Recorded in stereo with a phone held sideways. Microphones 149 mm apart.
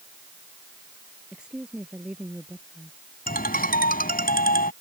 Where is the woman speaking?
5° right (ahead or behind).